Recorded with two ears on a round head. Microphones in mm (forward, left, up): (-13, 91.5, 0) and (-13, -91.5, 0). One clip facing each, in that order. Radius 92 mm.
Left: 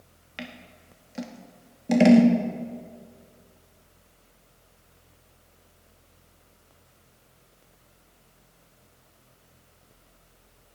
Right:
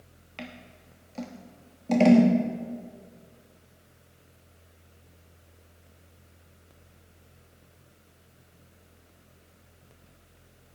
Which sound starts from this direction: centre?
Scissors, at 0.4 s.